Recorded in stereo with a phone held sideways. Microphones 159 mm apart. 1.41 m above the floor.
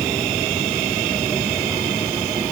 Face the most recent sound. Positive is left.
No sound to turn to.